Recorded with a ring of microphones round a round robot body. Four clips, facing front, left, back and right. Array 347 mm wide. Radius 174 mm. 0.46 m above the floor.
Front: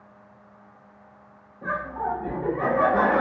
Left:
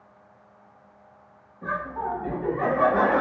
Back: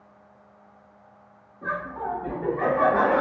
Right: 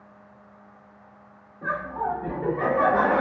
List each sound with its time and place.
1.6 s laughter: 85° right, 1.6 m; by 3.2 s 75° left, 1.3 m